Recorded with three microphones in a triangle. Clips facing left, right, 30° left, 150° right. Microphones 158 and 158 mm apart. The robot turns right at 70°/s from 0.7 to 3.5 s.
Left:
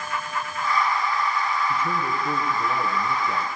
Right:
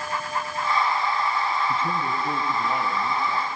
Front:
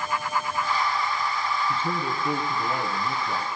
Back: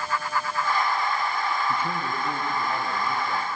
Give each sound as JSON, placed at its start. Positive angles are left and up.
{"t": 1.7, "sound": "a man speaking", "azimuth_deg": -90, "distance_m": 1.8}